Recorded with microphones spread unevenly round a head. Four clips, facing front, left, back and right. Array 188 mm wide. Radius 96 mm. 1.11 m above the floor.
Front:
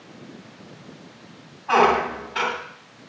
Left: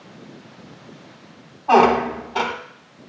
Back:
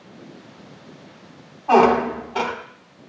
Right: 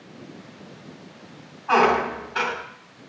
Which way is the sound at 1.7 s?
135° left.